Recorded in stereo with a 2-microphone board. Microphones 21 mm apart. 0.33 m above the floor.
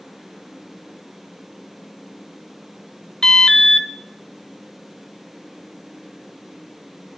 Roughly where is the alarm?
Left.